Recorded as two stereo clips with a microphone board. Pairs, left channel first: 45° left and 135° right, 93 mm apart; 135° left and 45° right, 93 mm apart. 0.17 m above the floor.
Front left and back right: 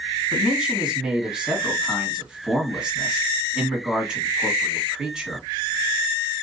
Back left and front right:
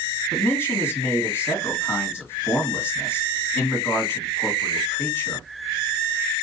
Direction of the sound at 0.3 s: 155° left.